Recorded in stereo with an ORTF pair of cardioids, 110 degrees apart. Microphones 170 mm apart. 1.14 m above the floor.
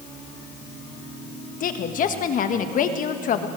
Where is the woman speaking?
55° left, 1.6 m.